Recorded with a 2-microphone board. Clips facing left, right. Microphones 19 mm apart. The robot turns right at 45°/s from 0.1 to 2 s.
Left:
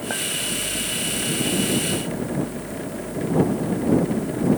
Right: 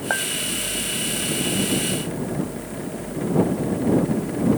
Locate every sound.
0.1 s a clink: 35° right (ahead or behind); by 0.3 s 40° right (ahead or behind)